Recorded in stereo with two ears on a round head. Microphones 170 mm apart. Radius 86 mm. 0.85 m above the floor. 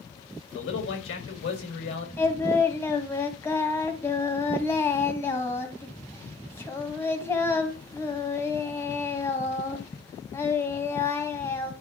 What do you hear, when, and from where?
0.5 s a man speaking: 70° left (ahead or behind), 4 m
2.2 s singing: 15° left (ahead or behind), 1.9 m